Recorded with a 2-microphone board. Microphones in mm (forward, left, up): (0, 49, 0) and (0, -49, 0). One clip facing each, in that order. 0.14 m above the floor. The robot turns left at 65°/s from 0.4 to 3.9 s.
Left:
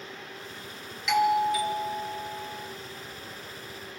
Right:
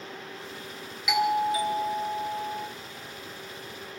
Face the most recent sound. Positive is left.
turn(degrees=170)